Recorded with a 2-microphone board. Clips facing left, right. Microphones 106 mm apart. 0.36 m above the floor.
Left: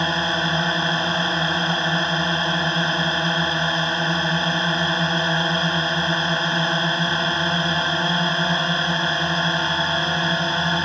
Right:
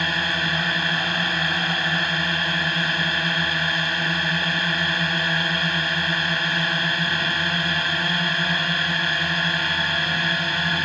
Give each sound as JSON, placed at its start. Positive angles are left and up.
{"t": 0.0, "sound": "a drone", "side_deg": 30}